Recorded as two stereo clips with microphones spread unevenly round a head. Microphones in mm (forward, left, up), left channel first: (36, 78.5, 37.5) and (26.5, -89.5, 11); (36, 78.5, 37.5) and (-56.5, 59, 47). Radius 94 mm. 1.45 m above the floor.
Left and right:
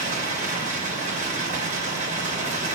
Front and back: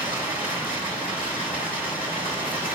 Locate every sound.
0.0 s running water: 45° right, 2.5 m